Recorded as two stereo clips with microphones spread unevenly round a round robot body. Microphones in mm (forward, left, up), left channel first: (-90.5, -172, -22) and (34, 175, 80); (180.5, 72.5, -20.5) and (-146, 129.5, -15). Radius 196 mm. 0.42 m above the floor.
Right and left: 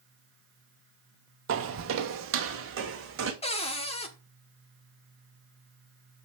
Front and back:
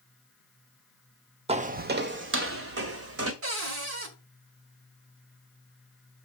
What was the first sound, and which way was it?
Footsteps, 100° left.